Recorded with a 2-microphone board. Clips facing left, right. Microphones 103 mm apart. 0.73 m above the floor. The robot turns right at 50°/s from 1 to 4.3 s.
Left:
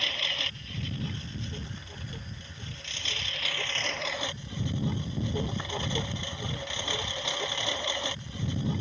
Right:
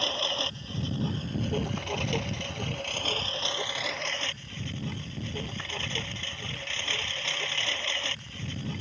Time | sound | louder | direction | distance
0.0 | a lawn mower | right 6 dB | 150° right | ?